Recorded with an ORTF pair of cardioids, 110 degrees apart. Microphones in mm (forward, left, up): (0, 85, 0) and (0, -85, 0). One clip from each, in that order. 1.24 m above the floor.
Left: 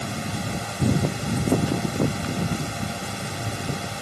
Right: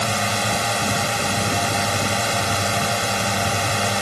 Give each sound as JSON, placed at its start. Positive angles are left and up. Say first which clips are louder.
{"t": 0.0, "sound": "a drone", "louder": "right 10 dB", "azimuth_deg": -65}